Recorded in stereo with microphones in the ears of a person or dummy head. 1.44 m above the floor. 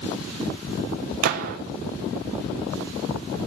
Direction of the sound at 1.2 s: 50° right (ahead or behind).